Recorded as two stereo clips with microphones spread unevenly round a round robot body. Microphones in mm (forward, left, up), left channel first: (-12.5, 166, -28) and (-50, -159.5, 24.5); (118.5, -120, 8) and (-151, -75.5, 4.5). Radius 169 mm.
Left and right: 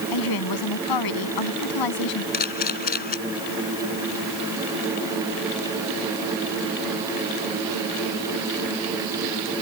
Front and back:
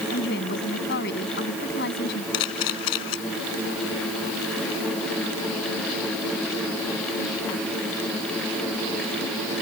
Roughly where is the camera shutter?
Ahead.